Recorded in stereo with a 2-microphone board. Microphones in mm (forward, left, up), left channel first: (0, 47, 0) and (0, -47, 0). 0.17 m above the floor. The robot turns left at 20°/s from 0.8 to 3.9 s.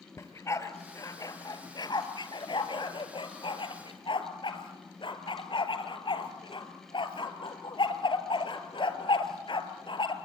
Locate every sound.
0.2 s a dog barking: 35° left (ahead or behind), 1.6 m; by 10.2 s 70° left (ahead or behind), 1.6 m